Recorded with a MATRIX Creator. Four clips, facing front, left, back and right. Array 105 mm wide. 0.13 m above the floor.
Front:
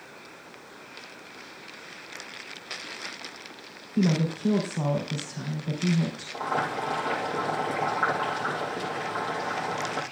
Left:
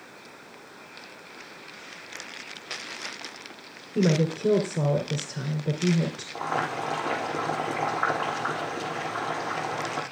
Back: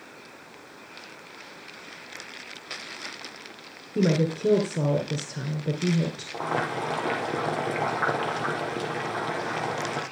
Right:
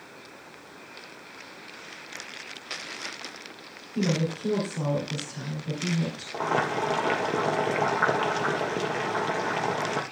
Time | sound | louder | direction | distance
4.0 | a woman speaking | left 4 dB, back 2 dB | 140° left | 2.5 m
6.3 | boiling | right 3 dB, even | 120° right | 3.5 m